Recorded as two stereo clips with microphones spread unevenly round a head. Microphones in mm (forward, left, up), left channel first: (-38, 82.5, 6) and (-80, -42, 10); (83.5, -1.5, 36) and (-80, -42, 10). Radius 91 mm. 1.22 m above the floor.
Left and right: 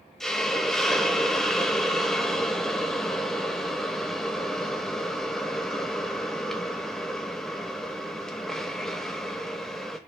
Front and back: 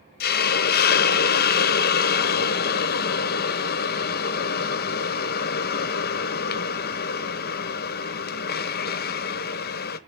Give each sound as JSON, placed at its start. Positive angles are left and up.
{"t": 0.2, "sound": "a hiss", "azimuth_deg": -15, "distance_m": 0.8}